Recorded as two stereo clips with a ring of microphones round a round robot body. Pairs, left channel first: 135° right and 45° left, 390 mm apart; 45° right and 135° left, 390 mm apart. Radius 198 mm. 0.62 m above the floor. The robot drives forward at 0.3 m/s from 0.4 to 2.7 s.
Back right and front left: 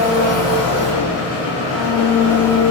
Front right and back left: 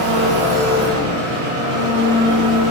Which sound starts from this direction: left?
An engine running, at 0.0 s.